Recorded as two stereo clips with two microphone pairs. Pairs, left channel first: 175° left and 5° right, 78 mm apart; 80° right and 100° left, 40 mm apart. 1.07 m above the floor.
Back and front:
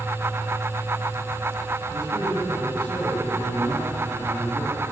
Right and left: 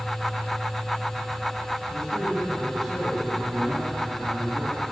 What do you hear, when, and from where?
1.9 s a man speaking: 10° left, 9 m